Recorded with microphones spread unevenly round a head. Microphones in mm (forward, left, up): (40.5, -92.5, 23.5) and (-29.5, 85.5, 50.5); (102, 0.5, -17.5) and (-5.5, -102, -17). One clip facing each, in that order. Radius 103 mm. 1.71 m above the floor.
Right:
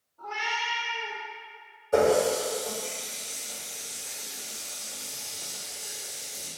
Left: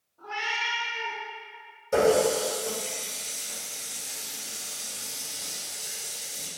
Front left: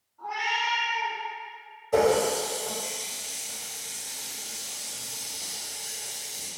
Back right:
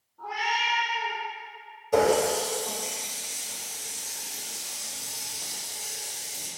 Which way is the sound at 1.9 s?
150° left.